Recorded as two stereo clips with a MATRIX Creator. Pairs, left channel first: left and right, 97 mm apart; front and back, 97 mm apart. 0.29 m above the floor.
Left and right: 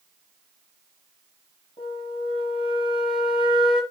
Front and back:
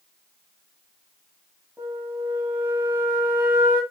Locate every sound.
1.8 s a flute: 110° left, 6 m